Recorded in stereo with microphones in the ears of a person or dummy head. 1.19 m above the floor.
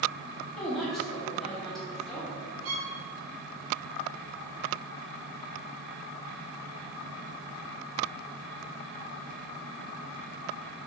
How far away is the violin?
About 2.5 m.